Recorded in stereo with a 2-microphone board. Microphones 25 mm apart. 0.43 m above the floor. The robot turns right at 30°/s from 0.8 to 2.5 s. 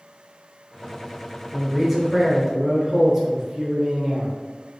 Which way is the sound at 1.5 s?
Centre (ahead or behind).